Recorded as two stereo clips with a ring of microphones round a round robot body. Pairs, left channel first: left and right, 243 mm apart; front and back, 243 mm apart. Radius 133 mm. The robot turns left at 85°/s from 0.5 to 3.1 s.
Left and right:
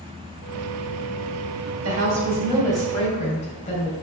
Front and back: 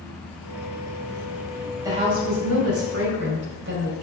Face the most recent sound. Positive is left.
turn(degrees=150)